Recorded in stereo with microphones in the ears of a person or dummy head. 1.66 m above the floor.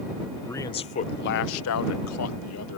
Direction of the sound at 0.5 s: 10° left (ahead or behind).